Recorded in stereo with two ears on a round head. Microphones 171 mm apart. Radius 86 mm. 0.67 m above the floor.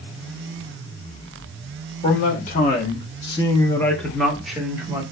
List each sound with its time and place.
2.0 s a man speaking: 45° left (ahead or behind), 1.0 m; by 5.0 s 10° right (ahead or behind), 1.2 m